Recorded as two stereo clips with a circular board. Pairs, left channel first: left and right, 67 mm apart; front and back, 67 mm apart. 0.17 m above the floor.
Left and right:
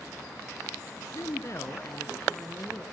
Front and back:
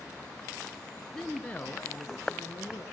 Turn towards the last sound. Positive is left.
turn(degrees=35)